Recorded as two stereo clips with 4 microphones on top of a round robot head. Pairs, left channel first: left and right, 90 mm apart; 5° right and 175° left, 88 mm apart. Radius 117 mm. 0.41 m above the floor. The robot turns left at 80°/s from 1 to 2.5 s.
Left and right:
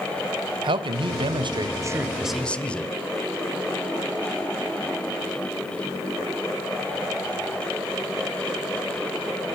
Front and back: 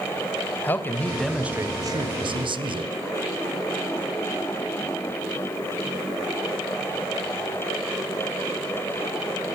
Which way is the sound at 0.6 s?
75° right.